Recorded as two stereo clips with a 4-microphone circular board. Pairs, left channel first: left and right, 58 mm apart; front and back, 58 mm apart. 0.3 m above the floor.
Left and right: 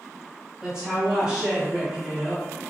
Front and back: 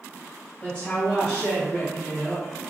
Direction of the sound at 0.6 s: 30° right.